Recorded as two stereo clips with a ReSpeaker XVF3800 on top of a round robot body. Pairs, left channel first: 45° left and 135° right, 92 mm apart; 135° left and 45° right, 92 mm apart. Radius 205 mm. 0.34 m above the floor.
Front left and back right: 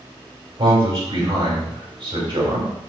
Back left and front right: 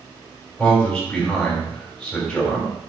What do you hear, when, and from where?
0.6 s a man speaking: 145° right, 3.5 m